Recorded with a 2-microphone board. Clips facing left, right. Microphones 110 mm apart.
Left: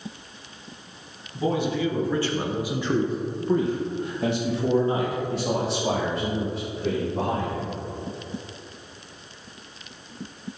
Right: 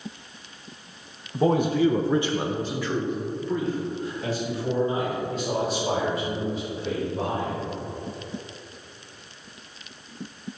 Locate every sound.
1.3 s a man speaking: 55° right (ahead or behind), 1.0 m; by 7.8 s 80° left, 3.5 m